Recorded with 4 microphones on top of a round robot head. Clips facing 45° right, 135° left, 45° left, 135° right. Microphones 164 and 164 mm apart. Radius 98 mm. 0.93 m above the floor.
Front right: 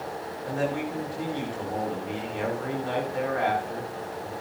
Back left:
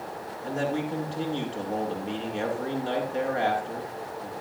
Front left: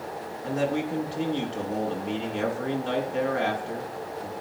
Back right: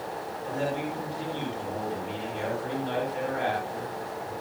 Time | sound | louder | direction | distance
0.4 | a man speaking | even, front left 4 dB | 70° left | 9 m